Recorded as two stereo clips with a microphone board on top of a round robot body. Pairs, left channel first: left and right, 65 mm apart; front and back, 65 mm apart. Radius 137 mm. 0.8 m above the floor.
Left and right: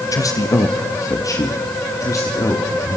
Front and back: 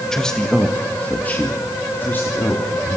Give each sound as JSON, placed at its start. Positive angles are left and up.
{"t": 0.1, "sound": "a man speaking", "azimuth_deg": 80, "distance_m": 1.6}